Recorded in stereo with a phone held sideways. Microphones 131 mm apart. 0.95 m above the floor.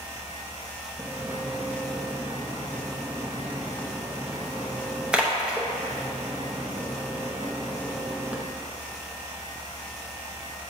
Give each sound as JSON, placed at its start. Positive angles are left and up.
{"t": 1.0, "sound": "a splash", "side_deg": -10, "distance_m": 0.8}